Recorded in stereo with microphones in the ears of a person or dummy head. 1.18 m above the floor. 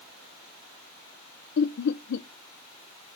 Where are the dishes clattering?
I don't hear dishes clattering.